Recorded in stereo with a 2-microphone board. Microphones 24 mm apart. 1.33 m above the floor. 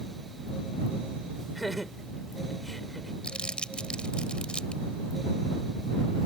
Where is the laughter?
Centre (ahead or behind); by 3.1 s 5° left (ahead or behind).